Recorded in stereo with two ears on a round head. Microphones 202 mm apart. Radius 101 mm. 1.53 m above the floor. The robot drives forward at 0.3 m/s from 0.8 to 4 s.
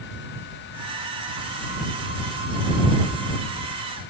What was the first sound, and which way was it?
Only background noise.